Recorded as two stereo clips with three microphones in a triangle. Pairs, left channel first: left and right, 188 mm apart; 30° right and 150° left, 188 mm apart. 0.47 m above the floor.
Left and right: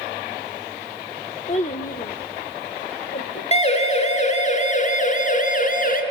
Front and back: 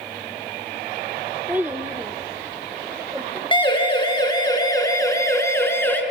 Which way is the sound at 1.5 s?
75° left.